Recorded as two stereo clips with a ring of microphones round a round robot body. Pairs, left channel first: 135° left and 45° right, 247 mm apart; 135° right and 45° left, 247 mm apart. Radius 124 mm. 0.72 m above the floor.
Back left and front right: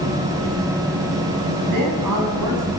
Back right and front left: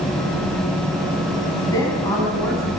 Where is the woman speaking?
60° right, 6.5 m.